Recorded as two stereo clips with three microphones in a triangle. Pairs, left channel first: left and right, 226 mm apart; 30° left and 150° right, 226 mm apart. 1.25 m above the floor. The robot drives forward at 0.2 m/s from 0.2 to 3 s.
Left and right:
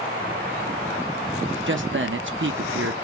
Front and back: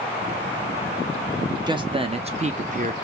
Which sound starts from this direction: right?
A man speaking, at 1.7 s.